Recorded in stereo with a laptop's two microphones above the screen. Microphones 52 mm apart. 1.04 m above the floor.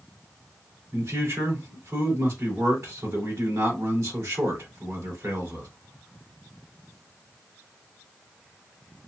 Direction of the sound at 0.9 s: 65° right (ahead or behind).